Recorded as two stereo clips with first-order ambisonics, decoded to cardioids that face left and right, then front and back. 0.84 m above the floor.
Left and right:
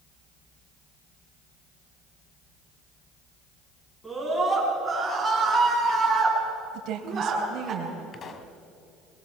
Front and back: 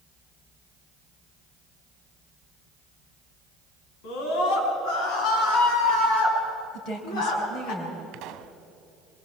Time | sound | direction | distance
4.0 | a scream | straight ahead | 7.5 m
6.7 | a woman speaking | 50° right | 4 m
8.1 | a pop | 150° left | 1.6 m